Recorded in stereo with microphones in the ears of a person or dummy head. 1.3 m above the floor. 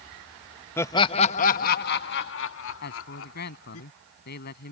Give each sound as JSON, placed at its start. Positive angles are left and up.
{"t": 0.8, "sound": "laughter", "side_deg": 15}
{"t": 2.8, "sound": "a man speaking", "side_deg": 55}